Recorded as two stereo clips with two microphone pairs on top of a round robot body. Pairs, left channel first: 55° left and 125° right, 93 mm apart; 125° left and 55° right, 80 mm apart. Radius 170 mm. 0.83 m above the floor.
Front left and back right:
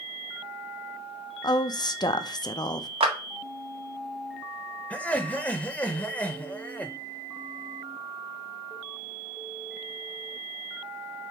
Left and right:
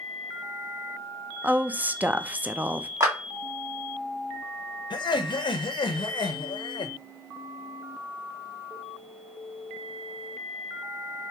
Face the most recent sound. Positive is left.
turn(degrees=135)